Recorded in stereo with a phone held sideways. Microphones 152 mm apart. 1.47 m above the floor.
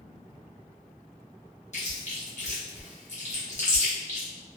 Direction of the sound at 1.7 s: 50° left (ahead or behind).